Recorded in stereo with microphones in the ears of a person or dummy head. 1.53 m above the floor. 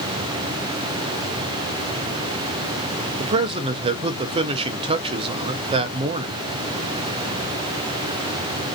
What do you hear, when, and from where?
3.2 s a man speaking: 30° right (ahead or behind), 0.6 m